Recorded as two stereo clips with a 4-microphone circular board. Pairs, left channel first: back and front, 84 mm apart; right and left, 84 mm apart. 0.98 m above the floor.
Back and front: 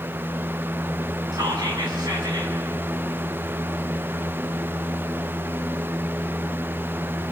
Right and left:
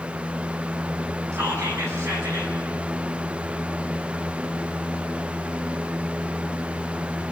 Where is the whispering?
35° left, 7 m.